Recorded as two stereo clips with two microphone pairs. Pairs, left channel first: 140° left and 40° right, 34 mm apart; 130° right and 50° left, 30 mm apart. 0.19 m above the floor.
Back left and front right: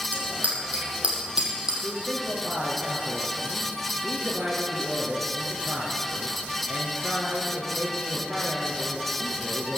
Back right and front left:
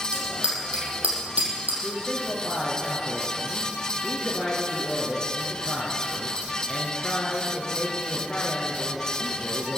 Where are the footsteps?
I don't hear footsteps.